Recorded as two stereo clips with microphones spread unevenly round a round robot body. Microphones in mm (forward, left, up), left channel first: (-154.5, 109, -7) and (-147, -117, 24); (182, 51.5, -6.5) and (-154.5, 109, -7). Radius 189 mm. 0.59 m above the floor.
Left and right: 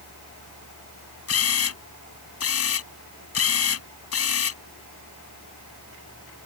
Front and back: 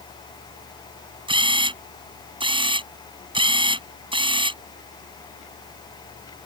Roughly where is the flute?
I don't hear a flute.